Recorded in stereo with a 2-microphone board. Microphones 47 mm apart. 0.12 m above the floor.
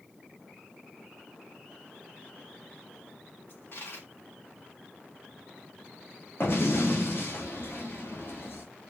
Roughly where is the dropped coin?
Left.